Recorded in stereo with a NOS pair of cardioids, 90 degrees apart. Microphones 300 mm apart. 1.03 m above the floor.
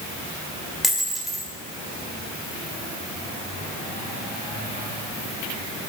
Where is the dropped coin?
Straight ahead, 1.5 m.